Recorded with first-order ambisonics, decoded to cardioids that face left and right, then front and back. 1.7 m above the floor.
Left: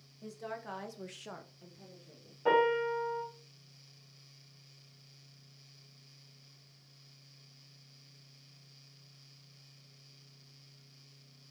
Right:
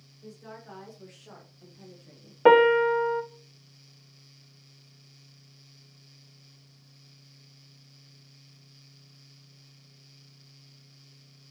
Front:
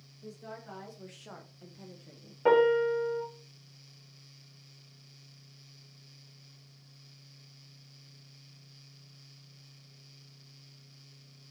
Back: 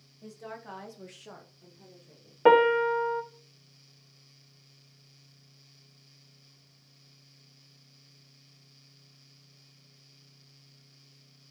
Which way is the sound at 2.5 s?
120° right.